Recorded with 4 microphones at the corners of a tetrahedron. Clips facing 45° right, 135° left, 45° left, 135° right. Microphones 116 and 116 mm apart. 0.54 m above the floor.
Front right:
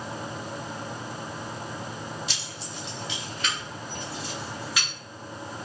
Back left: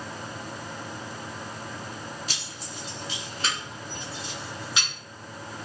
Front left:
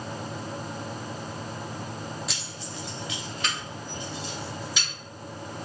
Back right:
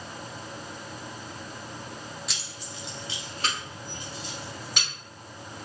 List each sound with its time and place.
2.3 s keys jangling: 135° left, 0.8 m; by 4.9 s 160° right, 2.0 m